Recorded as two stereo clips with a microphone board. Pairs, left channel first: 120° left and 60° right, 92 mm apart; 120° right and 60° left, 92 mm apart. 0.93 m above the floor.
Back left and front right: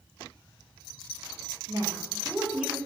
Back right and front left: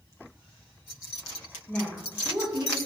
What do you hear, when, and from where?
1.7 s a woman speaking: 50° right, 0.8 m; by 2.8 s 30° left, 1.2 m